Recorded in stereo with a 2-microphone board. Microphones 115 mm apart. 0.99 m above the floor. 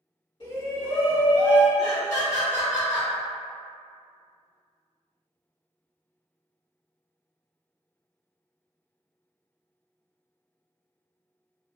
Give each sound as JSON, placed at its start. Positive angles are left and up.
{"t": 0.4, "sound": "a shout", "side_deg": 50, "distance_m": 1.9}
{"t": 1.8, "sound": "laughter", "side_deg": 70, "distance_m": 1.5}